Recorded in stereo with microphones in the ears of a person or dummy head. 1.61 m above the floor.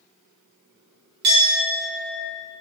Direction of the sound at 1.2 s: 45° right (ahead or behind).